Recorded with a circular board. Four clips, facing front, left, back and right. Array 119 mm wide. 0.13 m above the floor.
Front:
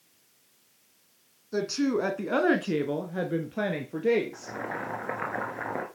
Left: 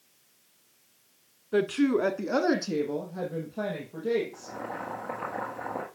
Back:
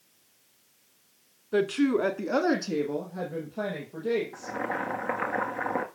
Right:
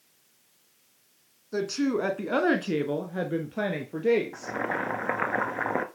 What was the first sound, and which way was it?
A woman speaking, 140° left.